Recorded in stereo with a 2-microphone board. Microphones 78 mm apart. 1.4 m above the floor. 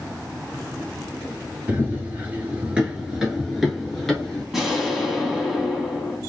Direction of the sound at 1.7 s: 25° right (ahead or behind).